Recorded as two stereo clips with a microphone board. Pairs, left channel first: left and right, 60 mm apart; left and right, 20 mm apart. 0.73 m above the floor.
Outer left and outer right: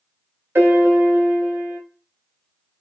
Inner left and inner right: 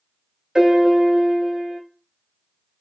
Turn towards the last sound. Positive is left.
turn(degrees=-40)  # may be behind; listen again after turning